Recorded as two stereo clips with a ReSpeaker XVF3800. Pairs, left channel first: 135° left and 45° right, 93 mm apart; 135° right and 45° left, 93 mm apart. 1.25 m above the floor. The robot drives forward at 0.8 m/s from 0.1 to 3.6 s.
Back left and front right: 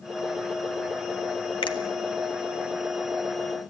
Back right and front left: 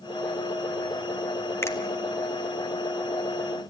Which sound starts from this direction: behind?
A finger snap, at 1.6 s.